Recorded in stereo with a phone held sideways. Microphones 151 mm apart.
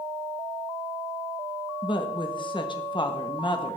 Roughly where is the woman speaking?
Left.